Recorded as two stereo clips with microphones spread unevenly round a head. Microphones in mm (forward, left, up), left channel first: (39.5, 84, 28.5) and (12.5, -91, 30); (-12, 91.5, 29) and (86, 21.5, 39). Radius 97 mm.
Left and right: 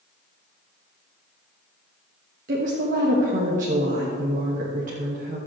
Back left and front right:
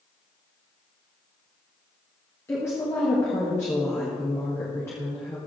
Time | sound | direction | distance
2.5 | a woman speaking | 145° right | 1.5 m